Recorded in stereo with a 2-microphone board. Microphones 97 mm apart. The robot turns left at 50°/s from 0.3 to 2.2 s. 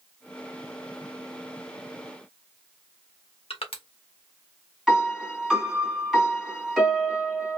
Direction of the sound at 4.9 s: 5° right (ahead or behind).